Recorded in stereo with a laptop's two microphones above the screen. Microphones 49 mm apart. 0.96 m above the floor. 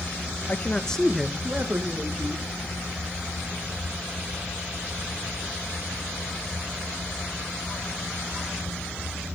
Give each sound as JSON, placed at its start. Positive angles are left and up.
{"t": 0.5, "sound": "a man speaking", "side_deg": 35, "distance_m": 1.2}